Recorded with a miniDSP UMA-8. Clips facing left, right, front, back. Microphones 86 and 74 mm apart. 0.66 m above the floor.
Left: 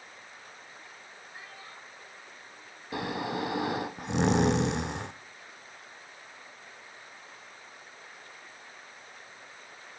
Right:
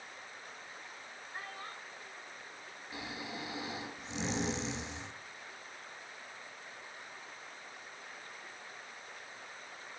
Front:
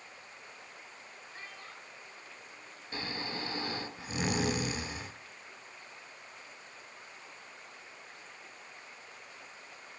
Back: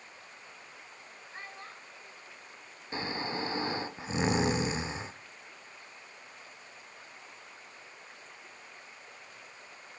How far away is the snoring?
About 0.7 m.